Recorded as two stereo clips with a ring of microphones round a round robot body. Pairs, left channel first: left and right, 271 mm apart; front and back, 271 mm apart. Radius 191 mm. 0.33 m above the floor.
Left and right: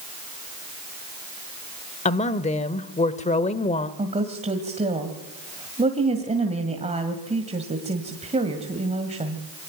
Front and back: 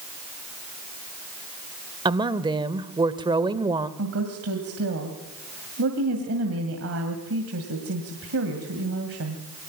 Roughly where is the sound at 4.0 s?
Behind right.